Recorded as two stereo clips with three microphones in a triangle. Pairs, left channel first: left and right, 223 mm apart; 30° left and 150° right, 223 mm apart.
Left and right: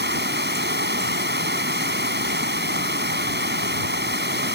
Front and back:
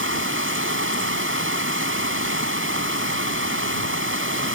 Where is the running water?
130° right.